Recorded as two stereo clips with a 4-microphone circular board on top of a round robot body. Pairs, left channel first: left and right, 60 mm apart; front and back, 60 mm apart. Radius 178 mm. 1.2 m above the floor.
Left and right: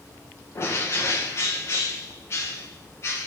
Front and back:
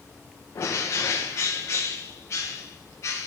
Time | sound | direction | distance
0.6 | a bird | 45° left | 0.6 m